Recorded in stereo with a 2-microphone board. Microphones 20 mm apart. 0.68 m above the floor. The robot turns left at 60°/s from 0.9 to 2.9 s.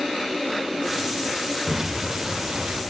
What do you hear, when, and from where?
1.7 s an explosion: 25° right, 3 m; by 2.8 s 95° right, 3 m